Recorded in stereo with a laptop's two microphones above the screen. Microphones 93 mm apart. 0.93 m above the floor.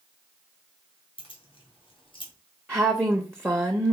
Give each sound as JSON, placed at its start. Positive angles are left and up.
{"t": 1.2, "sound": "keys jangling", "side_deg": 65, "distance_m": 1.5}
{"t": 2.7, "sound": "a woman speaking", "side_deg": -20, "distance_m": 0.7}